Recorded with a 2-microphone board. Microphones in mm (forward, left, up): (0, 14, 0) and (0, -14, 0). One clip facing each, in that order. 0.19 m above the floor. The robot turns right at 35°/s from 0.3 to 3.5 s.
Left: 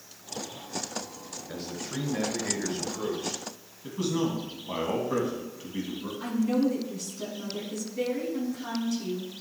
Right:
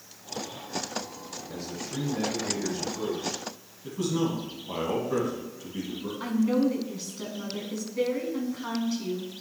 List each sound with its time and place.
1.5 s a man speaking: 65° left, 2.5 m; by 3.4 s 135° left, 2.5 m
3.8 s a man speaking: 20° left (ahead or behind), 1.6 m
6.2 s a woman speaking: 25° right (ahead or behind), 1.7 m